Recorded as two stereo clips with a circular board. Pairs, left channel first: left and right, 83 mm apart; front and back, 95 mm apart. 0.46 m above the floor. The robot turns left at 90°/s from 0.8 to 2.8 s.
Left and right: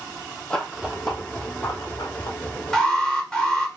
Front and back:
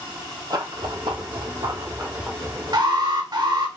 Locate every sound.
0.5 s running footsteps: 165° left, 0.6 m; by 2.4 s 95° left, 1.7 m
2.7 s an alarm: 175° left, 1.1 m; by 3.7 s 165° left, 1.1 m